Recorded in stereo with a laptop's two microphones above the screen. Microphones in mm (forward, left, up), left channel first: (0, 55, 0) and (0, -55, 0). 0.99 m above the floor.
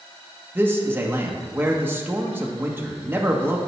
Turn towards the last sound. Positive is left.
turn(degrees=-20)  # may be behind; listen again after turning